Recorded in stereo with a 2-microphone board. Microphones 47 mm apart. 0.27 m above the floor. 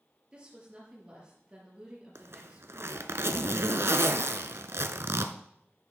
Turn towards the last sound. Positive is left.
turn(degrees=-75)  # may be behind; listen again after turning